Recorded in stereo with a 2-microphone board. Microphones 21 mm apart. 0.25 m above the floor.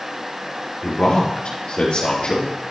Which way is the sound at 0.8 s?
70° left (ahead or behind).